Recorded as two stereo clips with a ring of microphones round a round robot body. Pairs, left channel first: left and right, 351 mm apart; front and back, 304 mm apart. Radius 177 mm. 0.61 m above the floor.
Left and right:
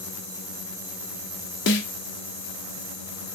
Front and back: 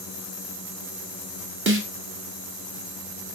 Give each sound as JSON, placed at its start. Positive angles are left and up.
{"t": 1.7, "sound": "a snare drum", "azimuth_deg": 140, "distance_m": 1.7}